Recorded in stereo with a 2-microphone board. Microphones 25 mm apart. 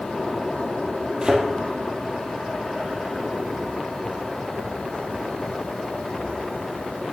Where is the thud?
35° right (ahead or behind), 3.5 m.